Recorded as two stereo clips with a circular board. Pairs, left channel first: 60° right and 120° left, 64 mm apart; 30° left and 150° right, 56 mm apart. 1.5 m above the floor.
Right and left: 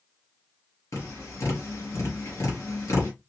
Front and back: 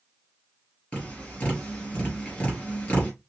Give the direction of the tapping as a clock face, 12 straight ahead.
1 o'clock.